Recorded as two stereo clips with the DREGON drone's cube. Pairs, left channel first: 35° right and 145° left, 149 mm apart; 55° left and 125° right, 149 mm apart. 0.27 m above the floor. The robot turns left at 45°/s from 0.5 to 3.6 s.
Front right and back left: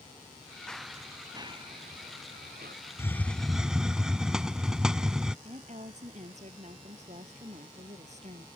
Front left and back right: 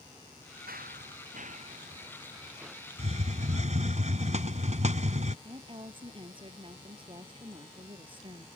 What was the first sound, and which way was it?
Running footsteps, 120° right.